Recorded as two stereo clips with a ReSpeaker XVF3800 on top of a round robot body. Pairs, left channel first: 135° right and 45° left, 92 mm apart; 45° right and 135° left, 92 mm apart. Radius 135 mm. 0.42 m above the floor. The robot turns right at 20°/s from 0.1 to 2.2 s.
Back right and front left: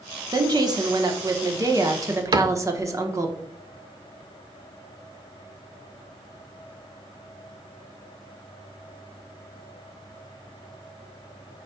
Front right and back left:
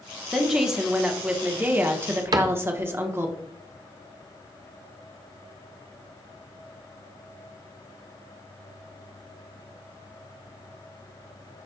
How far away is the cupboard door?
About 0.7 m.